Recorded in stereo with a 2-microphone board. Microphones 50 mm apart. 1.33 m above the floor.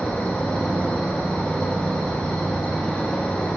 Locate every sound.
0.0 s an insect: 15° left (ahead or behind), 1.5 m